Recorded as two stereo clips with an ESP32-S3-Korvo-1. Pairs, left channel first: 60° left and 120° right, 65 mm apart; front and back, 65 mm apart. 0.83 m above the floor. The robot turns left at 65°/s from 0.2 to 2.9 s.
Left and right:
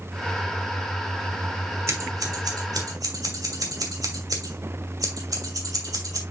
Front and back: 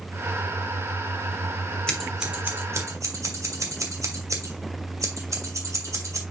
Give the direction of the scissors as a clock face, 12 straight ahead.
3 o'clock.